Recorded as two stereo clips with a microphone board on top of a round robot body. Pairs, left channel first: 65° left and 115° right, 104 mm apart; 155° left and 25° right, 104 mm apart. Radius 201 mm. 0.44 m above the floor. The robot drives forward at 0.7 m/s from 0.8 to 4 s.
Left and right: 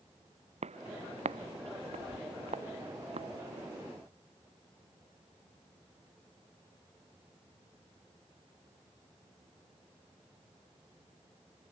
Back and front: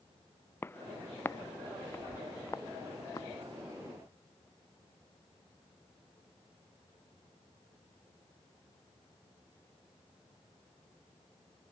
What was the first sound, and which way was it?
Footsteps, 130° right.